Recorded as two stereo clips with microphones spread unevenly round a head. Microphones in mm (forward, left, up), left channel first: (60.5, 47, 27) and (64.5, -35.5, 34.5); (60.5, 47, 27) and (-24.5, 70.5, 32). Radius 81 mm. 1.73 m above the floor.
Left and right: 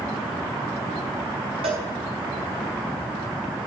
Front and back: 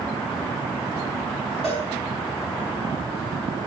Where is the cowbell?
105° right, 4 m.